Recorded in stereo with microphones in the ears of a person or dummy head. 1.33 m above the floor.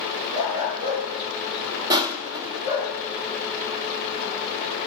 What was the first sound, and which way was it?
A dog barking, 30° right (ahead or behind).